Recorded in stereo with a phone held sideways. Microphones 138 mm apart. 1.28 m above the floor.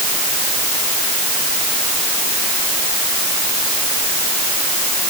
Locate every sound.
Only background noise.